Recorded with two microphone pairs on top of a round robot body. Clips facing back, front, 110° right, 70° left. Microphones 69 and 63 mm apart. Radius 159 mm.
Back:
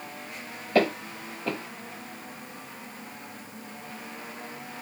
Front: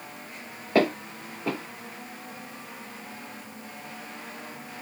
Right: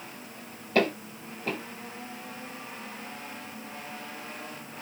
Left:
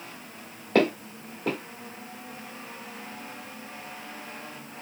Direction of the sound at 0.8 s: 60° left.